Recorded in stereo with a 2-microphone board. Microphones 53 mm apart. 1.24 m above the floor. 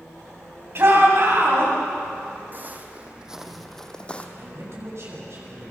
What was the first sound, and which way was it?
A shout, 50° right (ahead or behind).